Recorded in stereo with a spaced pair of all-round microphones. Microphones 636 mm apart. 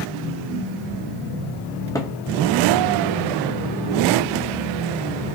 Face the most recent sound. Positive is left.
turn(degrees=5)  # may be behind; listen again after turning